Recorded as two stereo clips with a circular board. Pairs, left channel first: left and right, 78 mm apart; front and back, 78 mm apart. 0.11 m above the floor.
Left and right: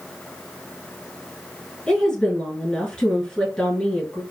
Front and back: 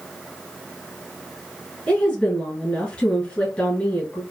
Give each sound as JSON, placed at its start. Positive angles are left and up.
{"t": 1.9, "sound": "a woman speaking", "azimuth_deg": 35, "distance_m": 1.6}